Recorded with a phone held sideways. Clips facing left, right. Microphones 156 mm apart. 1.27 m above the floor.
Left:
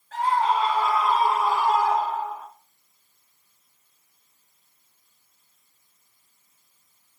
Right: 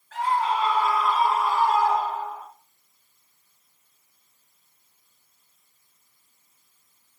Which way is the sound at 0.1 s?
40° left (ahead or behind).